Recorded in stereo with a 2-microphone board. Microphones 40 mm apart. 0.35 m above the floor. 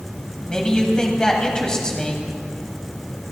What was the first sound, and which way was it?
A man speaking, 20° left (ahead or behind).